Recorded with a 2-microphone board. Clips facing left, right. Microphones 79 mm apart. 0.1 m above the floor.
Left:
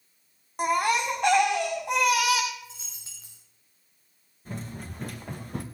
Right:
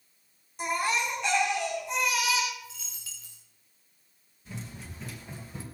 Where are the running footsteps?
50° left (ahead or behind), 2.5 m; by 5.7 s 70° left (ahead or behind), 2 m.